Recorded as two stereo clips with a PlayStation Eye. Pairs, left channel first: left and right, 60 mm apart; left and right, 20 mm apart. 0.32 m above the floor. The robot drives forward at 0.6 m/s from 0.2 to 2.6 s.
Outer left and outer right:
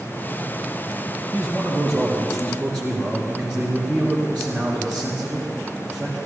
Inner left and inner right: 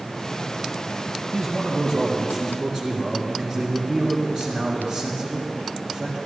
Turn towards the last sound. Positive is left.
turn(degrees=25)  # may be behind; listen again after turning